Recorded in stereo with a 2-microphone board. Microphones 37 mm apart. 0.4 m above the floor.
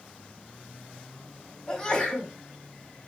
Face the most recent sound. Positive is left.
turn(degrees=15)  # may be behind; listen again after turning